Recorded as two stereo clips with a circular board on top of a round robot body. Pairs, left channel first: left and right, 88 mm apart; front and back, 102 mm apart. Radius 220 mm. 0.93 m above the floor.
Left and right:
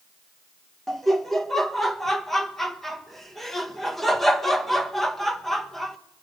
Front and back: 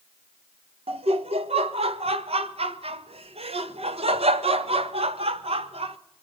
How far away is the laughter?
About 1.4 m.